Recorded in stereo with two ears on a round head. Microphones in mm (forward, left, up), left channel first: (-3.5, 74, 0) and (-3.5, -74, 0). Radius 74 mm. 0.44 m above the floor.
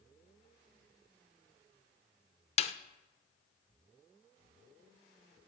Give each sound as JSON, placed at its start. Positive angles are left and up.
{"t": 2.6, "sound": "a snare drum", "side_deg": 40, "distance_m": 0.7}